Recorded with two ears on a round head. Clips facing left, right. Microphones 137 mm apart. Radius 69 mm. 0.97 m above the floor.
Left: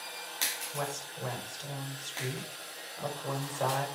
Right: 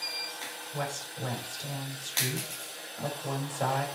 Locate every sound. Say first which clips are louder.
0.7 s a woman speaking: right 1 dB; 15° right (ahead or behind), 5.5 m